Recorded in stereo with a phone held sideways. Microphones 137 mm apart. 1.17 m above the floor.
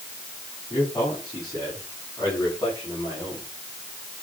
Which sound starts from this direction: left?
A man speaking, at 0.7 s.